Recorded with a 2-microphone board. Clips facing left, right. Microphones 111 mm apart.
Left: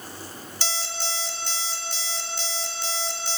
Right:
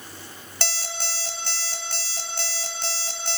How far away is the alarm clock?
About 1.3 m.